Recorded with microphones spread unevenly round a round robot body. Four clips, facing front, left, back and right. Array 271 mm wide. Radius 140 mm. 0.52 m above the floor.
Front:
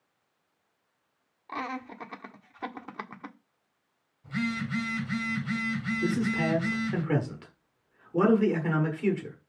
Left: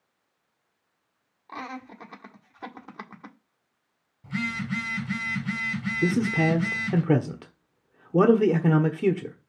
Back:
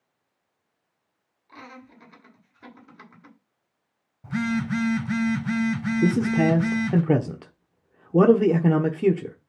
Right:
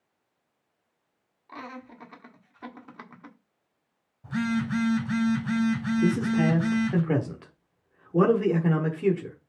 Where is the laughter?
15° left, 1.7 m.